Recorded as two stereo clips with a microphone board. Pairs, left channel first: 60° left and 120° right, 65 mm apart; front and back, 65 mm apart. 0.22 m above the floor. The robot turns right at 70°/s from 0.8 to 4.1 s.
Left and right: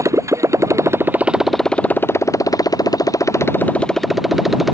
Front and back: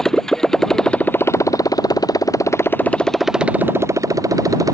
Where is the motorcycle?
85° right; by 4.8 s 155° left.